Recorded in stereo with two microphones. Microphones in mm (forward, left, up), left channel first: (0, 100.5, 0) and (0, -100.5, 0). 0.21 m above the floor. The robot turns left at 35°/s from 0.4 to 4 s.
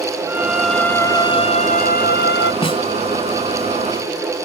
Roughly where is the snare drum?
Left.